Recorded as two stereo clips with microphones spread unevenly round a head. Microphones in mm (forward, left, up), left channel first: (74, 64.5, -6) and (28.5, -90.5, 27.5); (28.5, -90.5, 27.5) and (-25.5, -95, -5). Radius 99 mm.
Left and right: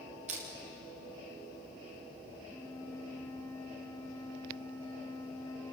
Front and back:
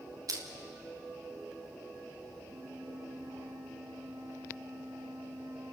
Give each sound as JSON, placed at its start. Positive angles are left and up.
{"t": 0.3, "sound": "crushing", "azimuth_deg": -165, "distance_m": 2.0}
{"t": 2.4, "sound": "a flute", "azimuth_deg": 150, "distance_m": 1.7}